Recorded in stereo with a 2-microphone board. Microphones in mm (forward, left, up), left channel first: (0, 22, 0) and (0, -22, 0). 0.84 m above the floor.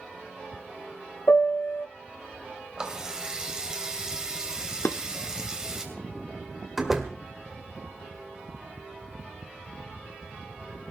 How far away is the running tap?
About 2.5 m.